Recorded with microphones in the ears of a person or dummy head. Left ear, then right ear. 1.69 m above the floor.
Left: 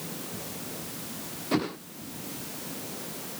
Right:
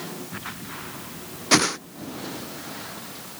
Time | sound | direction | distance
1.5 | a whoosh | 60° right (ahead or behind) | ?